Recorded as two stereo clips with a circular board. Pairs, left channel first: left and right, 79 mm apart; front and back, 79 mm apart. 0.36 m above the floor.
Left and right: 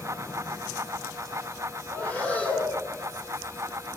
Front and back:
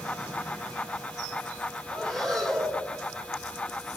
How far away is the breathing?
About 1.2 m.